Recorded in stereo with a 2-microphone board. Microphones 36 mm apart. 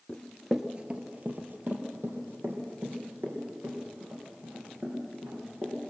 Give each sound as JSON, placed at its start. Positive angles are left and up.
{"t": 0.1, "sound": "running footsteps", "side_deg": 20, "distance_m": 1.2}